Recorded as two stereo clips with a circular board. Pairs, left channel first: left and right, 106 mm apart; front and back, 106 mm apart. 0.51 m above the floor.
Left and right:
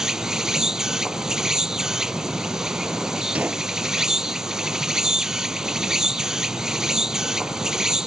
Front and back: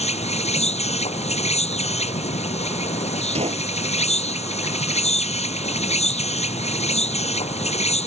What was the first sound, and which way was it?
An insect, 5° right.